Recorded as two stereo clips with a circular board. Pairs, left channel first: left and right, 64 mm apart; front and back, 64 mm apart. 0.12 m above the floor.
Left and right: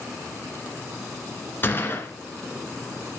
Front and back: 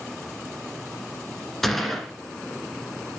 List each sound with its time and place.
1.6 s a gunshot: 80° left, 1.6 m